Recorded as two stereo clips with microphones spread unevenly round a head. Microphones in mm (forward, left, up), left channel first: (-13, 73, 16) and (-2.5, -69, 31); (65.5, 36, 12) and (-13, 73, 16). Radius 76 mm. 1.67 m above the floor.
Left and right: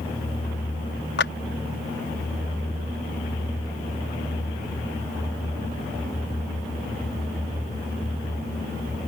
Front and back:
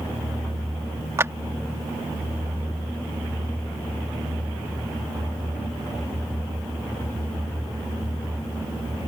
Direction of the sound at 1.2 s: 95° left.